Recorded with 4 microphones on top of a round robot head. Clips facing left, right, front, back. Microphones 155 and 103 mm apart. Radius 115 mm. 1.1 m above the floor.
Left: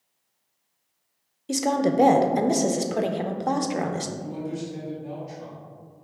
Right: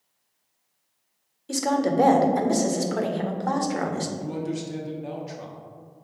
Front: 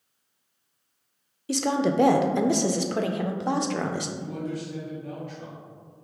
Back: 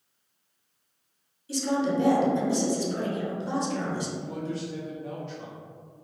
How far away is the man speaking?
About 0.9 m.